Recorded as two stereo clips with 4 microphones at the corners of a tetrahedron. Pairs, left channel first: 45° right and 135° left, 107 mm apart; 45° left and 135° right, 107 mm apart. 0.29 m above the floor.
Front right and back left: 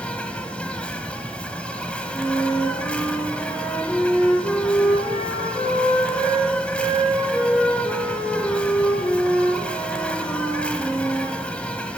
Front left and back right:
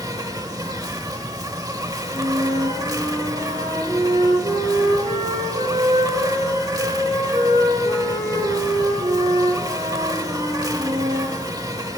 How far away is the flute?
About 5 m.